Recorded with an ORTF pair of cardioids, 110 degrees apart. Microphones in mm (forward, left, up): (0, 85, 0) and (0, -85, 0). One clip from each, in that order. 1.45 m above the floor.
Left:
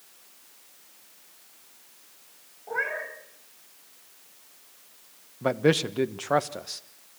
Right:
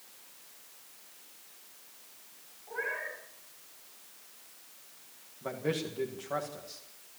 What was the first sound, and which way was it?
A cat meowing, 65° left.